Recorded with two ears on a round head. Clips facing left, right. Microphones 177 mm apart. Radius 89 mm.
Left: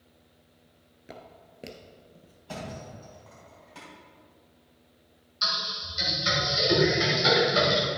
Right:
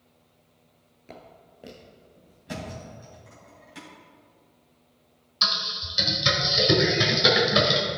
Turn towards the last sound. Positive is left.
turn(degrees=-65)  # may be behind; listen again after turning